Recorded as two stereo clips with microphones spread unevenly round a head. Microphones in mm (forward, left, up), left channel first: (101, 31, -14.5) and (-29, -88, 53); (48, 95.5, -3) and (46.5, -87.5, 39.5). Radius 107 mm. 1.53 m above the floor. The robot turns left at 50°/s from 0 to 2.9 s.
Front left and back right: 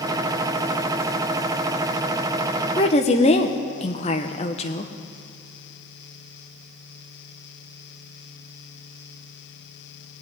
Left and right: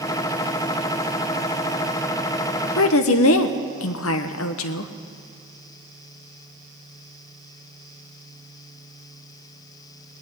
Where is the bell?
No bell in this recording.